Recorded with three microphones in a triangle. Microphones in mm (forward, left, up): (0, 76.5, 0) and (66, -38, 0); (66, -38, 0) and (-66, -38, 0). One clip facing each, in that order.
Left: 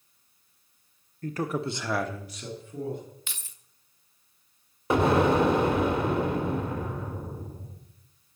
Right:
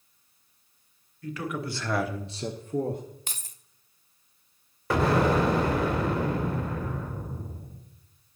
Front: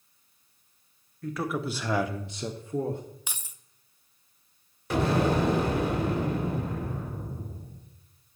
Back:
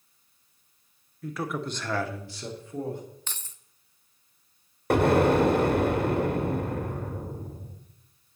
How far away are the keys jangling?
About 0.5 m.